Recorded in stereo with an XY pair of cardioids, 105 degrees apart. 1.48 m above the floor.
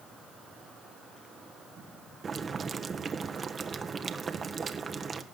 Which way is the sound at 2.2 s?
35° right.